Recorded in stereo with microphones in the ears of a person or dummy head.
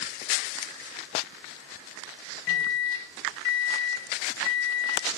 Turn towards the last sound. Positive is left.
turn(degrees=65)  # may be behind; listen again after turning